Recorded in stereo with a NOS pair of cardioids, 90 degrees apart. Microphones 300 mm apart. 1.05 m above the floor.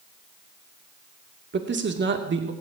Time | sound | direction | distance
1.5 | a man speaking | 35° right | 2.5 m